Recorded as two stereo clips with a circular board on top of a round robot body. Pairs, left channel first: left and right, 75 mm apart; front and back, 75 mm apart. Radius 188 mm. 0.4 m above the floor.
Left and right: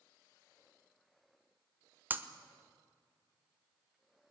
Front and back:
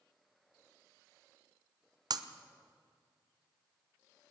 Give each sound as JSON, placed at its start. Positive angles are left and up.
{"t": 2.1, "sound": "breaking glass", "azimuth_deg": -155, "distance_m": 1.1}